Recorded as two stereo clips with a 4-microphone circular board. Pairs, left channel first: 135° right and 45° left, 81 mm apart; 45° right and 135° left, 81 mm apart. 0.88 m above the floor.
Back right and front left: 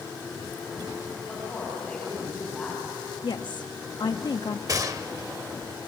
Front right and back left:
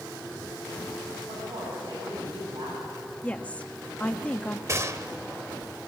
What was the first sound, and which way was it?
A woman speaking, 145° left.